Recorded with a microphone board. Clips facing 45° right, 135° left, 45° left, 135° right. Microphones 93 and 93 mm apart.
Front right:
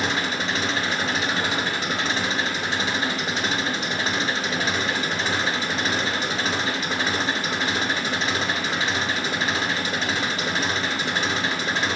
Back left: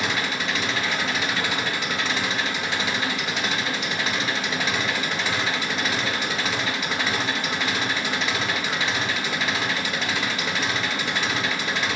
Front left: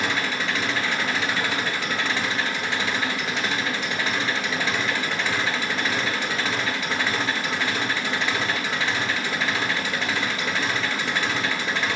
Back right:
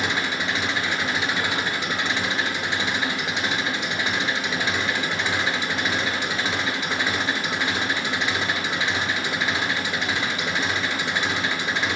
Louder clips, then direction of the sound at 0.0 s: Front right 1 dB, even; 70° right.